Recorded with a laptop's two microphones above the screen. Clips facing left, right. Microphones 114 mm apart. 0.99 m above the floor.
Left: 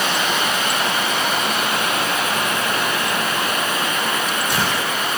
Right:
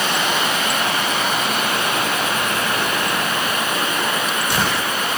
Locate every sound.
Only background noise.